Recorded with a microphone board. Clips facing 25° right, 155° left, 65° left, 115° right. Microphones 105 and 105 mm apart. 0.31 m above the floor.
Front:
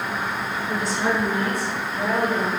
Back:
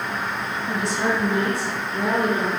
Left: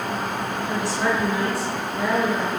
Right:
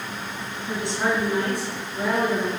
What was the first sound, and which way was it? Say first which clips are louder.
A woman speaking: back 1 dB, even; 170° left.